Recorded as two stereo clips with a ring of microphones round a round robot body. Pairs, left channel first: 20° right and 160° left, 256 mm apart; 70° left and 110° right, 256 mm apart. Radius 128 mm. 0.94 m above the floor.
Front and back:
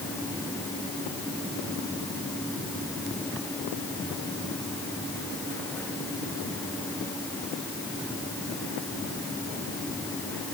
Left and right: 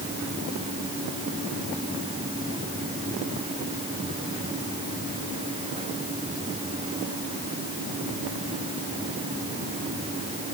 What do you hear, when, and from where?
Only background noise.